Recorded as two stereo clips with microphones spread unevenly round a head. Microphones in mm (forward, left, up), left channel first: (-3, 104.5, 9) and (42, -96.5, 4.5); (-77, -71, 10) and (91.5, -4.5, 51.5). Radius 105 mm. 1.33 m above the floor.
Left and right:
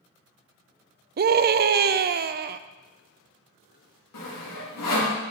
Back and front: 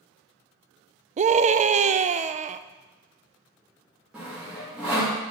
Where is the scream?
30° right, 0.5 m.